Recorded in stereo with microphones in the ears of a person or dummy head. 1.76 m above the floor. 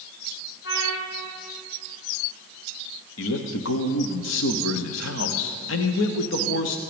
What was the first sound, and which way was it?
A trumpet, 60° left (ahead or behind).